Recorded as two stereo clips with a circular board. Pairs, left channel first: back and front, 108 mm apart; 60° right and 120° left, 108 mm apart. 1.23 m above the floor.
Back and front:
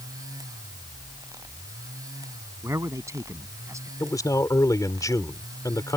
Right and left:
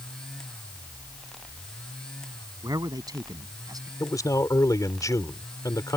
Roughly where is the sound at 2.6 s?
Ahead left.